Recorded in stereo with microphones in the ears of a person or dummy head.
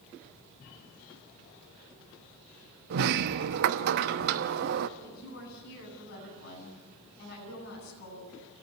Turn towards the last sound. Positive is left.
turn(degrees=60)  # may be behind; listen again after turning